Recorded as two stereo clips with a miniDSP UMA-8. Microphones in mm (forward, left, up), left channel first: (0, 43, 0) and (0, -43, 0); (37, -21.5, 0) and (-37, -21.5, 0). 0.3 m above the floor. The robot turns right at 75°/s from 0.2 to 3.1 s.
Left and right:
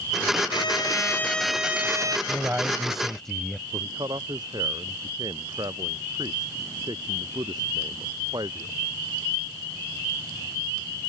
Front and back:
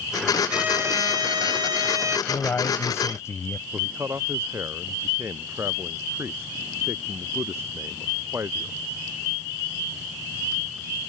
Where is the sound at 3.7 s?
125° right.